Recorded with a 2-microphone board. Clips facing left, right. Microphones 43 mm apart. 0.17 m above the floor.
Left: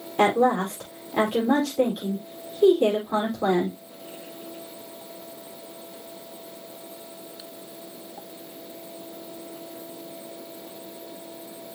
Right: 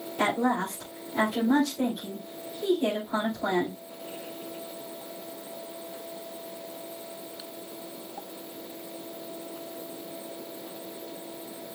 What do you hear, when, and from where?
0.2 s a woman speaking: 75° left (ahead or behind), 5 m